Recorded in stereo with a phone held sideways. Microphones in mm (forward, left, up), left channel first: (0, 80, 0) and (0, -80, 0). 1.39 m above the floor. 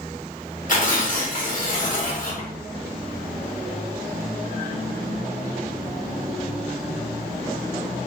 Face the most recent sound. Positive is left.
turn(degrees=55)  # may be behind; listen again after turning